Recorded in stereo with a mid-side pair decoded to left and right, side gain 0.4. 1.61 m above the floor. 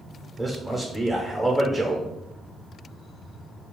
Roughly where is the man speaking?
Ahead.